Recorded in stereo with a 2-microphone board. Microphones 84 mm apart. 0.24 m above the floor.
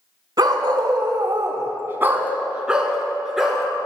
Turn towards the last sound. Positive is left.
turn(degrees=0)  # may be behind; listen again after turning